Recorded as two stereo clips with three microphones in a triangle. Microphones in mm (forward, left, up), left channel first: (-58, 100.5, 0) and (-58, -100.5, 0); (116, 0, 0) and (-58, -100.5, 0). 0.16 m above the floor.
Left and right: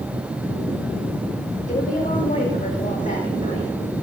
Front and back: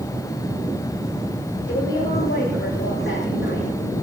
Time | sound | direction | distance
1.7 | a woman speaking | 40° left | 7.5 m